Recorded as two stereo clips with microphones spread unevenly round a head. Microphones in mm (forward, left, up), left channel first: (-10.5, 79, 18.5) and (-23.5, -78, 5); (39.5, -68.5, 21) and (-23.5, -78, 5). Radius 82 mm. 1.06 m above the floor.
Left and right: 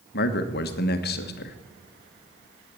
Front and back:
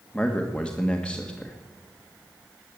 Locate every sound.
0.1 s a man speaking: 95° left, 1.3 m